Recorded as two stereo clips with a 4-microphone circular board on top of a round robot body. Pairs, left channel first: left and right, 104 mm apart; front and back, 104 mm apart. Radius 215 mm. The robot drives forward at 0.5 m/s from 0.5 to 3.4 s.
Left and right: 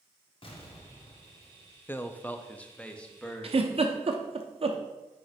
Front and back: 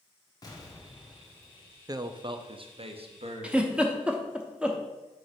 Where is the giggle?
100° right, 0.9 m.